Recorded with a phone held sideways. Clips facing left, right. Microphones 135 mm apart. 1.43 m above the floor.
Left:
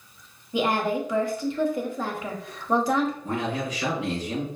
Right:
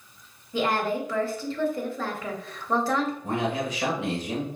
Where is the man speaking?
70° right (ahead or behind), 1.7 m.